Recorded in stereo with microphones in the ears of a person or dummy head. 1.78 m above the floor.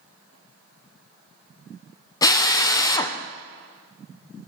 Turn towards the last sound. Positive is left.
turn(degrees=25)  # may be behind; listen again after turning